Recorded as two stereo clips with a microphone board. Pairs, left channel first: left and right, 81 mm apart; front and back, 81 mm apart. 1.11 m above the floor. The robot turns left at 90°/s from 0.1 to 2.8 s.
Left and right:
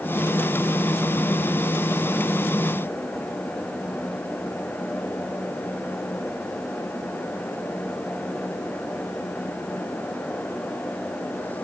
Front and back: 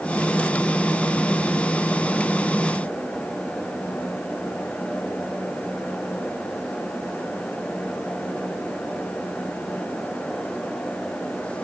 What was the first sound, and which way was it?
Only background noise.